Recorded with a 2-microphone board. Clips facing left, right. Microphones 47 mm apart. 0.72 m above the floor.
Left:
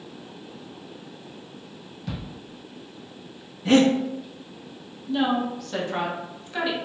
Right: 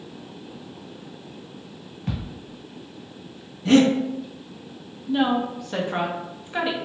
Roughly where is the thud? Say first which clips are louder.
Right 3 dB; right.